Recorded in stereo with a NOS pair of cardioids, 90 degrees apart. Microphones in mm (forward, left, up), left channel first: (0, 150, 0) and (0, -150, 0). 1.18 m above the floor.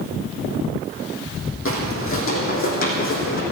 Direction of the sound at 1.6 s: 50° left.